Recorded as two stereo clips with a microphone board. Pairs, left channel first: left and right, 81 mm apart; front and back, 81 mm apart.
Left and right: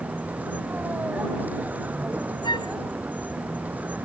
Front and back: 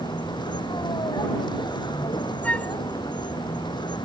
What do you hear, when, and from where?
0.0 s a vehicle: 20° right
2.4 s a flute: 75° left